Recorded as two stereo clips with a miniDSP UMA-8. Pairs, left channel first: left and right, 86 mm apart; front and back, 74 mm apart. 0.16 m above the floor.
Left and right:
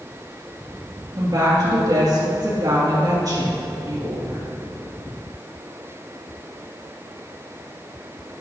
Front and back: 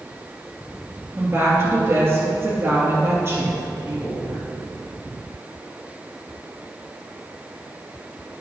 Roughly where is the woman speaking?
Behind right.